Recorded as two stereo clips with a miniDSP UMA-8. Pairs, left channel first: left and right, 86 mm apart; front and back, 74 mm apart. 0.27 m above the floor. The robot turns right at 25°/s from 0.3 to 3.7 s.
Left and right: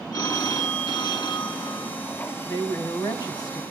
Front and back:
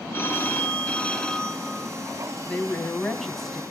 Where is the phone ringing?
55° left, 1.4 m; by 1.9 s 95° left, 1.4 m.